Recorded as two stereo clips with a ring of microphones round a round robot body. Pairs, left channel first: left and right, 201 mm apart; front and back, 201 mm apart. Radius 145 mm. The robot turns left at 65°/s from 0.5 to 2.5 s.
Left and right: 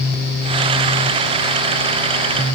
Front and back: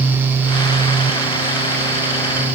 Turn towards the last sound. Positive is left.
No sound to turn to.